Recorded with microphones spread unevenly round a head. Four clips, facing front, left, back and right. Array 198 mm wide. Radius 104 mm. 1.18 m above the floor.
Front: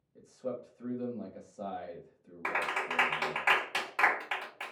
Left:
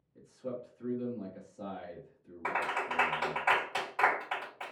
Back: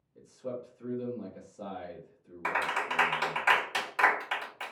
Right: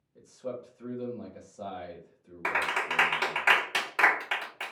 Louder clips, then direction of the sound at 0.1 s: Right 2 dB, even; 15° right.